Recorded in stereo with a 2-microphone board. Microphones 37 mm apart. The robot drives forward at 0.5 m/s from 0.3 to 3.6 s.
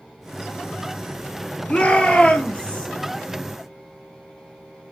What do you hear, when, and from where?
1.7 s a shout: 35° left (ahead or behind), 2.5 m; by 2.9 s 30° left (ahead or behind), 3 m